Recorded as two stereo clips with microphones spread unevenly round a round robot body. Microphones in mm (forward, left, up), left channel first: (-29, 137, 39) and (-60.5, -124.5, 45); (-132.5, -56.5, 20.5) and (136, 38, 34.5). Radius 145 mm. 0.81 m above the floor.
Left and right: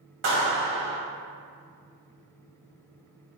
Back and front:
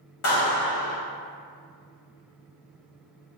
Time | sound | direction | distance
0.2 | a clap | 130° right | 1.3 m